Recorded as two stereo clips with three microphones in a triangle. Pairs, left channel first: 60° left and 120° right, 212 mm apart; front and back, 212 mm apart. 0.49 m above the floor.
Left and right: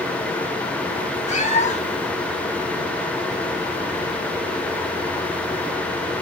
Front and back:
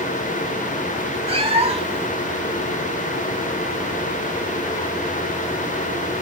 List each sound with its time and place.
1.3 s a cat meowing: 115° left, 0.7 m